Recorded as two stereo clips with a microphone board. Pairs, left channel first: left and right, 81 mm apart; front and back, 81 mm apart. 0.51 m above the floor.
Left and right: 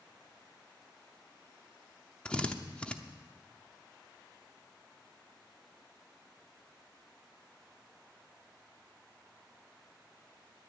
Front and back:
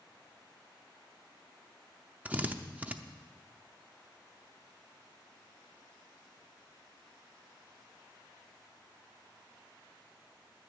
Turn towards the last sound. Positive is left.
turn(degrees=145)